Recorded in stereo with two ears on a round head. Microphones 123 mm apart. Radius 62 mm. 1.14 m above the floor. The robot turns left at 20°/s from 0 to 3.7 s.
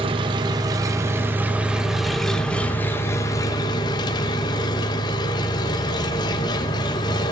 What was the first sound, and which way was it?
An engine running, 140° right.